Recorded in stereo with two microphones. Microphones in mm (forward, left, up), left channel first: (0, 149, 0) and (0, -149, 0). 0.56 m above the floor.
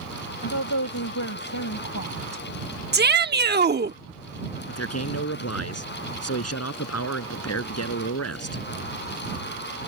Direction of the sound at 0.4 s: 75° left (ahead or behind).